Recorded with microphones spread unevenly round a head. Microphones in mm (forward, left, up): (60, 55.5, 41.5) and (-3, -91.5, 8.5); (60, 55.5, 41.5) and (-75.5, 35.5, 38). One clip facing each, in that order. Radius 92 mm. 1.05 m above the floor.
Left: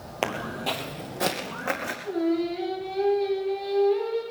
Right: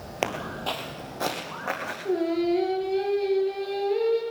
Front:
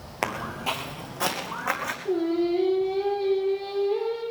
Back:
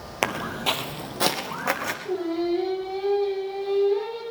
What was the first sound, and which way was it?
Footsteps, 140° left.